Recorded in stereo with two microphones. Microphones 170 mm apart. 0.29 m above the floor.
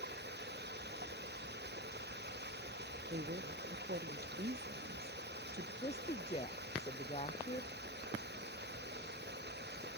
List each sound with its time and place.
0.0 s running water: 80° right
3.1 s a woman speaking: 70° right (ahead or behind)
5.8 s a woman speaking: 40° left (ahead or behind)